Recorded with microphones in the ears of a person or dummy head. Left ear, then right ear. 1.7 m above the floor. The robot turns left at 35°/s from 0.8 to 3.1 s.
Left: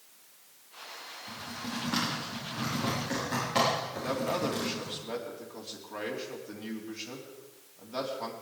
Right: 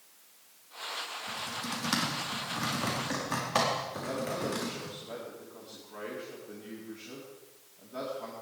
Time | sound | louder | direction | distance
1.3 | typing on a keyboard | even | 75° right (ahead or behind) | 4.5 m
3.9 | a man speaking | left 3 dB | 35° left (ahead or behind) | 4 m